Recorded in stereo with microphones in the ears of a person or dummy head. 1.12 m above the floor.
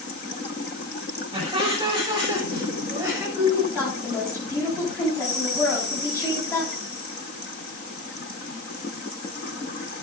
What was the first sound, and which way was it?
Laughter, 20° right (ahead or behind).